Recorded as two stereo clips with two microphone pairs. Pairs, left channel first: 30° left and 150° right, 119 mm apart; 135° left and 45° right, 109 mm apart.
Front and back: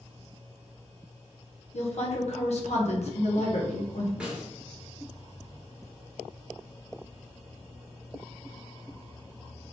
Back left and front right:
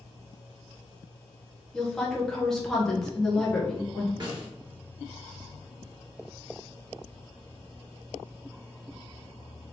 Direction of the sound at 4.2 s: 70° right.